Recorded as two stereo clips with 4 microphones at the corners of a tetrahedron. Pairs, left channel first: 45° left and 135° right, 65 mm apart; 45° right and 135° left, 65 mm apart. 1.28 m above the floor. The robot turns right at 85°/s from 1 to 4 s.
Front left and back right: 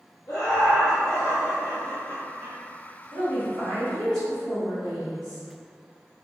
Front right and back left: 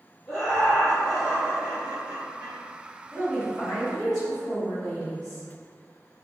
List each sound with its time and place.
0.3 s laughter: 35° left, 1.2 m; by 2.6 s 165° left, 1.2 m
3.1 s a woman speaking: 115° right, 1.6 m; by 5.5 s 40° right, 1.6 m